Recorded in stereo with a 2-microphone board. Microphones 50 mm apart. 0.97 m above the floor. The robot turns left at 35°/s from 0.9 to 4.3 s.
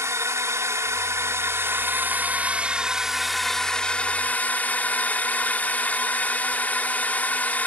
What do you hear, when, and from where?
0.0 s a drone: 95° right; by 7.7 s 145° left